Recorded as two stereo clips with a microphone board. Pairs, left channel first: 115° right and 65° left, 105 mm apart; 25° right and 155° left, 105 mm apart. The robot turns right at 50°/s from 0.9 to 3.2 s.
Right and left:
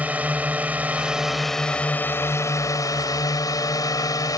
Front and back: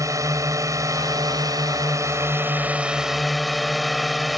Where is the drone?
130° left; by 4.4 s 115° right.